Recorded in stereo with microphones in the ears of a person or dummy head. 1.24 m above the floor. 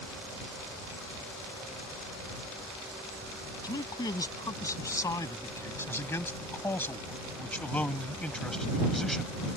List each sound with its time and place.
3.6 s a man speaking: 20° left (ahead or behind); by 9.4 s centre (ahead or behind)